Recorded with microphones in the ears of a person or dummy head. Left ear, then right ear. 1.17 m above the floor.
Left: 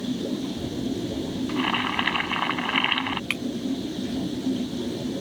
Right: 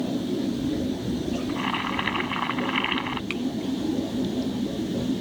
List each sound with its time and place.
1.5 s boiling: 15° left (ahead or behind)
3.3 s breaking glass: 30° left (ahead or behind)